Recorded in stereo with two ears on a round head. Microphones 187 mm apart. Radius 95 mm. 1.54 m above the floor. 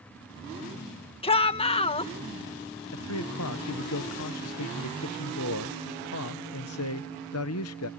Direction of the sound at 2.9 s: 75° left (ahead or behind).